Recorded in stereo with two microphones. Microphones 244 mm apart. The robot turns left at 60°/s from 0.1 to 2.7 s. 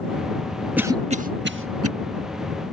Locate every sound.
0.8 s a cough: 5° right (ahead or behind); by 1.9 s 70° right (ahead or behind)